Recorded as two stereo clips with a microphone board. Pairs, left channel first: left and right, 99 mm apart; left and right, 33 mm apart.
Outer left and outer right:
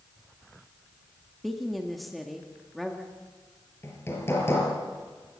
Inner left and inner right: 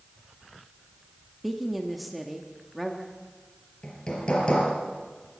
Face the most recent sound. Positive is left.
turn(degrees=25)  # may be behind; listen again after turning